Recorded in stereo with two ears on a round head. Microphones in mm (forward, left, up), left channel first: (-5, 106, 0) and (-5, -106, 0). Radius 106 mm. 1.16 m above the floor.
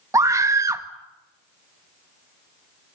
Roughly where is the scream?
Centre.